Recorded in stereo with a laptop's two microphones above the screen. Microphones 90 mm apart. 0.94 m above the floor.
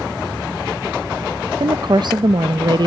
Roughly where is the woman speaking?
Right.